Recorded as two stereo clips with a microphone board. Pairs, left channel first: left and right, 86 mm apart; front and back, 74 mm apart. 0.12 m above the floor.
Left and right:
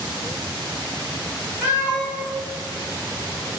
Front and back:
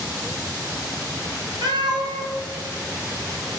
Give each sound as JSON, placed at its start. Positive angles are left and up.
{"t": 1.6, "sound": "a cat meowing", "azimuth_deg": -160, "distance_m": 1.6}